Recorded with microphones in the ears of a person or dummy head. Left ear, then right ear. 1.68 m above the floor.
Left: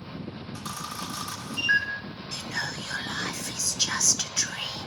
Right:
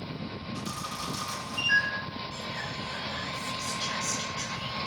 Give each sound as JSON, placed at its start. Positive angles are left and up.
{"t": 0.6, "sound": "a camera shutter", "side_deg": 35, "distance_m": 2.5}
{"t": 2.3, "sound": "whispering", "side_deg": 65, "distance_m": 0.7}